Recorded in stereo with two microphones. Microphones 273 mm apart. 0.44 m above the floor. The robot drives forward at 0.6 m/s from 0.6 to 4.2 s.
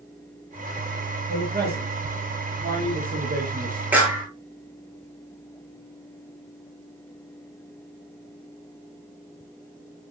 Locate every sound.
1.3 s a man speaking: 35° right (ahead or behind), 8.5 m; by 3.8 s 30° right (ahead or behind), 10 m
3.9 s a clap: 5° right (ahead or behind), 6 m